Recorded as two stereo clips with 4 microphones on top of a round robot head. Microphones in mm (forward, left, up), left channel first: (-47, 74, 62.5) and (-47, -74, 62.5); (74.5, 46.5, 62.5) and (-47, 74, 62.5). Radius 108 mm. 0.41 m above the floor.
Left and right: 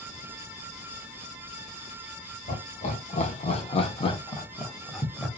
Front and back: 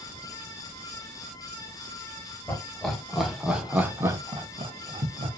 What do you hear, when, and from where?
2.5 s laughter: 65° left, 1.5 m; by 5.3 s straight behind, 1.1 m